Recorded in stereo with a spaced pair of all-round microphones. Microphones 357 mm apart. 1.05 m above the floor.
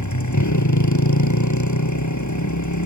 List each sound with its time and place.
0.0 s a motorcycle: 55° left (ahead or behind)